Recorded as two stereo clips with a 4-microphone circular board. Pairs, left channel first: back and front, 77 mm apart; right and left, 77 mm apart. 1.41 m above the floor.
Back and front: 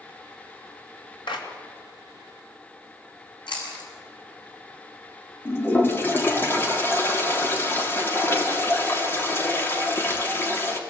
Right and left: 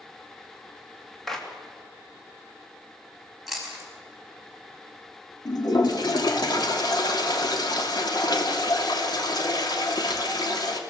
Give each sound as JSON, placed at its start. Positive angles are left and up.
{"t": 1.3, "sound": "a clap", "azimuth_deg": -175, "distance_m": 2.5}
{"t": 3.5, "sound": "chewing", "azimuth_deg": 180, "distance_m": 6.5}
{"t": 5.5, "sound": "a toilet flushing", "azimuth_deg": -120, "distance_m": 3.0}